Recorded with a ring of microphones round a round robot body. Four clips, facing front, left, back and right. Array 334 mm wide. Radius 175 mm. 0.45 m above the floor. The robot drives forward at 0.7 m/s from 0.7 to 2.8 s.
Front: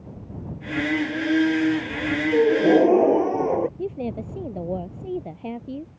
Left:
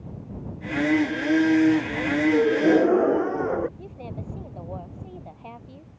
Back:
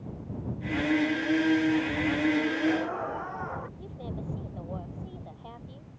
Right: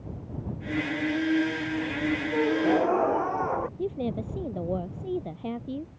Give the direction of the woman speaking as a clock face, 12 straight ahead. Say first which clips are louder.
Right 8 dB, front 11 dB; 1 o'clock.